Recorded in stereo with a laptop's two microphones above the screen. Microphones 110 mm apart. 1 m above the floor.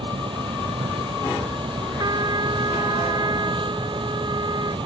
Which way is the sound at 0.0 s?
50° right (ahead or behind).